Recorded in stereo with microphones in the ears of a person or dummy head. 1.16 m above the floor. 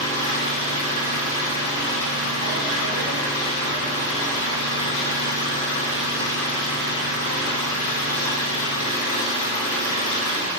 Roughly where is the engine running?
Left.